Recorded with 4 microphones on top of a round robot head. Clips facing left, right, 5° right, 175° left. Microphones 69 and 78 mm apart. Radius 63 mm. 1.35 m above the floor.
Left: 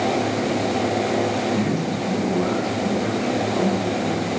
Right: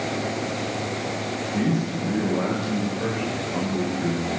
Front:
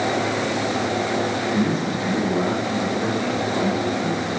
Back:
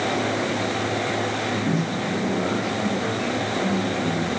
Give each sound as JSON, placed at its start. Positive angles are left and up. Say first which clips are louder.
{"t": 1.5, "sound": "a man speaking", "louder": "left 2 dB, front 2 dB", "azimuth_deg": -65, "distance_m": 8.0}